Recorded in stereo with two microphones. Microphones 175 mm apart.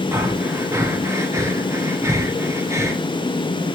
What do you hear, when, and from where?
0.1 s breathing: 15° right (ahead or behind), 0.6 m